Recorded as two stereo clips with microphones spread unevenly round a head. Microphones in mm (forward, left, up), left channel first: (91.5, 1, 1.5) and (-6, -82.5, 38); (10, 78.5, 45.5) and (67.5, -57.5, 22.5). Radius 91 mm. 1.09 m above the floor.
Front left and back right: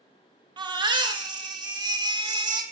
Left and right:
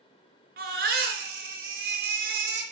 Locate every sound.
0.6 s a baby crying: 110° right, 1.0 m